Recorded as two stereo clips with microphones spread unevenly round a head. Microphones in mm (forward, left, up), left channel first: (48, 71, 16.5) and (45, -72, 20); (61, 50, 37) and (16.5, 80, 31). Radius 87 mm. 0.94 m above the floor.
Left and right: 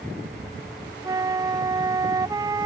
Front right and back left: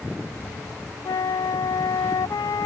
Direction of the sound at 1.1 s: 25° right.